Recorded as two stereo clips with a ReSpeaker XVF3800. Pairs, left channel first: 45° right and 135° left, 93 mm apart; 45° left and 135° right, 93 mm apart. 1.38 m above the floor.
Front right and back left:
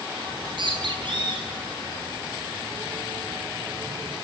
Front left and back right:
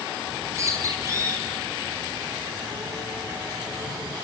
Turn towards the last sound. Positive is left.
turn(degrees=165)